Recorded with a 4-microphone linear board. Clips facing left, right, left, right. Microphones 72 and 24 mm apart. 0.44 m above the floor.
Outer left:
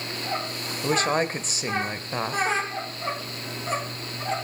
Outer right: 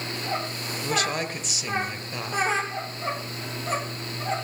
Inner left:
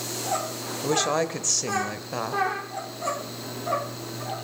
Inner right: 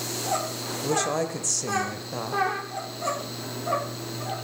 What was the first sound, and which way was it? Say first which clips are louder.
A woman speaking: outer left 4 dB, inner left 2 dB; 35° left (ahead or behind).